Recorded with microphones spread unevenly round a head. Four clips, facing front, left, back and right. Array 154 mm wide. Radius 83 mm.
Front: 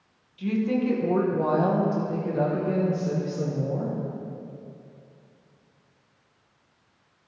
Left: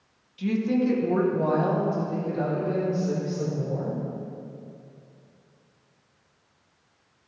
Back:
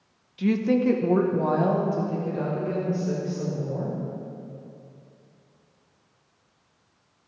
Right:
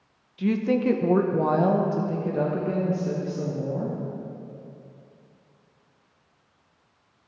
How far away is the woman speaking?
About 1.1 m.